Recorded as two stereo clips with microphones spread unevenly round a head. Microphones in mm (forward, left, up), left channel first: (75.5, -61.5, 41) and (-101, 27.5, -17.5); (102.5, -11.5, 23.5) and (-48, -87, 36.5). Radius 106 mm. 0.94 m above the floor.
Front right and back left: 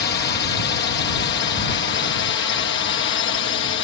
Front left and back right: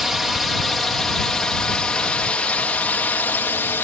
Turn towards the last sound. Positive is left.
turn(degrees=-45)